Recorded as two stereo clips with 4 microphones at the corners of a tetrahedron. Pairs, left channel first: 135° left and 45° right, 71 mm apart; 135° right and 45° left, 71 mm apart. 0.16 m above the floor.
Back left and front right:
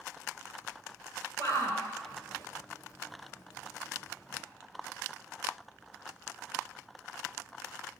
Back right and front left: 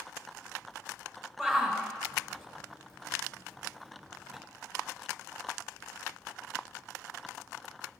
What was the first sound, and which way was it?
A shout, 145° left.